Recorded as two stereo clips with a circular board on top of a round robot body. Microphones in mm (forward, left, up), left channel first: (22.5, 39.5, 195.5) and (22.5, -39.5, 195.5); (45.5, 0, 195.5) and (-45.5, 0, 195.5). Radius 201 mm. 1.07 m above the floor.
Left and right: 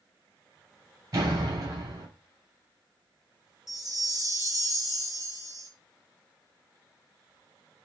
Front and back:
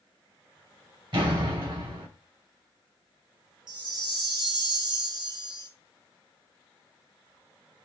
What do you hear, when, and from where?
1.1 s a door slam: 140° right, 6.5 m
3.7 s a chime: 140° left, 1.0 m